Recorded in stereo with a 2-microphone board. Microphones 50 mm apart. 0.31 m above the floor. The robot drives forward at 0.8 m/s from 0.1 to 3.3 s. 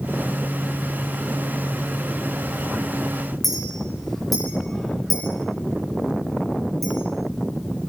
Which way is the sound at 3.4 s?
5° left (ahead or behind).